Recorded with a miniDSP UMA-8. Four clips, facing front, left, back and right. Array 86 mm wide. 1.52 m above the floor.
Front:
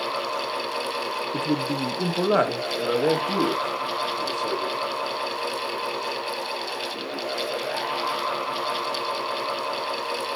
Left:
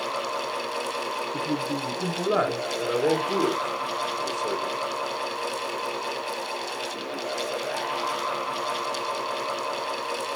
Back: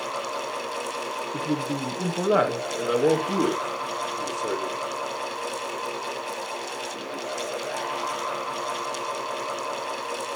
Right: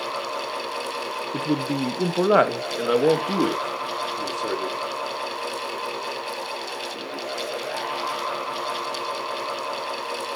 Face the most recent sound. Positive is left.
turn(degrees=-100)